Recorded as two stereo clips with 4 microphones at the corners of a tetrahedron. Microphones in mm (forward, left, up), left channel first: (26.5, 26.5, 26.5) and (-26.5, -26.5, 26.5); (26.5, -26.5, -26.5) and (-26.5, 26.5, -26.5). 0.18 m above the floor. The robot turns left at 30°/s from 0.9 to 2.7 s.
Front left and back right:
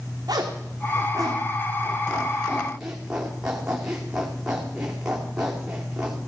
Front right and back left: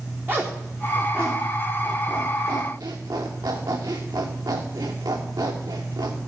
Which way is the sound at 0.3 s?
160° right.